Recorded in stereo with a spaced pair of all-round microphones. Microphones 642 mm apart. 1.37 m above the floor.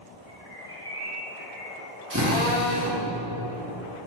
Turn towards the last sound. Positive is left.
turn(degrees=-25)  # may be behind; listen again after turning